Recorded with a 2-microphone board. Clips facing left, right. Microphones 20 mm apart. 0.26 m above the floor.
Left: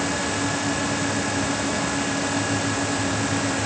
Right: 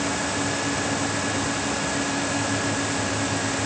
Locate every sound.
Only background noise.